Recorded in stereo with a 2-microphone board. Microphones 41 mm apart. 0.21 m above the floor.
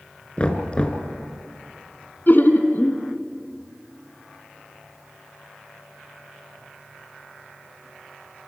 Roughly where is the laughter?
Left.